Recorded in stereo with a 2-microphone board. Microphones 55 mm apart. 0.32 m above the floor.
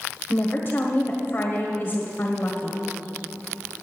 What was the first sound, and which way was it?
A woman speaking, 35° left (ahead or behind).